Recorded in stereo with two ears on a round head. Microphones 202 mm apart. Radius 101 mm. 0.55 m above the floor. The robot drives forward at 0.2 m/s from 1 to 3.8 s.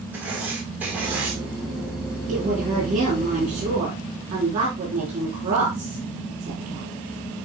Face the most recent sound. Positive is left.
turn(degrees=-35)  # may be behind; listen again after turning